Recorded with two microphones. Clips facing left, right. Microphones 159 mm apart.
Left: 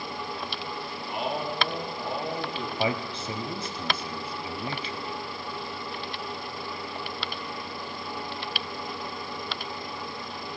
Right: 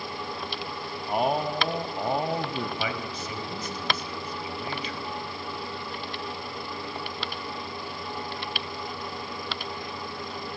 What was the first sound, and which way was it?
A man speaking, 50° right (ahead or behind).